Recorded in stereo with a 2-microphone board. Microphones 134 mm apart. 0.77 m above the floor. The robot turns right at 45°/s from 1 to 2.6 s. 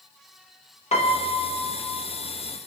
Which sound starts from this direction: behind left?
A piano, at 0.9 s.